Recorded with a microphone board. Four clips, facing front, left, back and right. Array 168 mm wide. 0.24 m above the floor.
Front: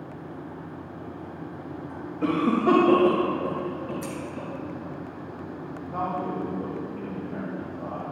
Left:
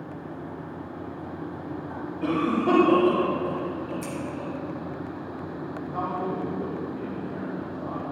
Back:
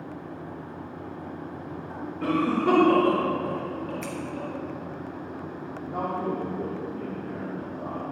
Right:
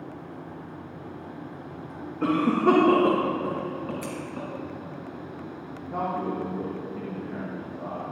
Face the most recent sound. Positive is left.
turn(degrees=-120)